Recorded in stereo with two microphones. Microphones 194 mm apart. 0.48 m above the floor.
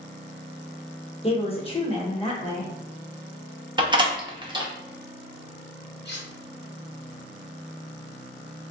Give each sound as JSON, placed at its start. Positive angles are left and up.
{"t": 1.2, "sound": "a woman speaking", "side_deg": 30, "distance_m": 0.8}
{"t": 3.8, "sound": "a door slam", "side_deg": -25, "distance_m": 0.5}
{"t": 6.0, "sound": "cutlery clinking", "side_deg": 65, "distance_m": 1.1}